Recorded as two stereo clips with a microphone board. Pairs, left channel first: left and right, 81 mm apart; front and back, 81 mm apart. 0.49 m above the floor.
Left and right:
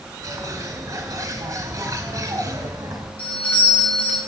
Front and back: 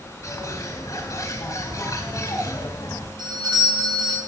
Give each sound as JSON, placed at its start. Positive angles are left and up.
{"t": 0.2, "sound": "a bird", "azimuth_deg": -50, "distance_m": 3.5}
{"t": 3.2, "sound": "a doorbell", "azimuth_deg": 160, "distance_m": 5.5}